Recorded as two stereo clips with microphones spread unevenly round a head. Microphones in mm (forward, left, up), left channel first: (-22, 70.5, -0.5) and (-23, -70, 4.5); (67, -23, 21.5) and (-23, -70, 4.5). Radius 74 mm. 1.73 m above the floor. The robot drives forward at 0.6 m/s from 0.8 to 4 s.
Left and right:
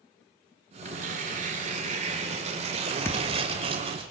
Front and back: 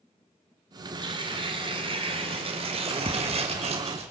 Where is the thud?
155° left, 1.5 m; by 3.5 s 160° left, 1.7 m.